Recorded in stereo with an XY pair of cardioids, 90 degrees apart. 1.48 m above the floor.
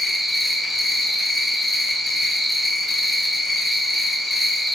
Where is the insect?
20° left, 0.7 m.